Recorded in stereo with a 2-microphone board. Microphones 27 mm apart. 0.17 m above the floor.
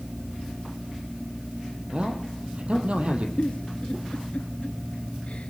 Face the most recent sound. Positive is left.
turn(degrees=50)  # may be behind; listen again after turning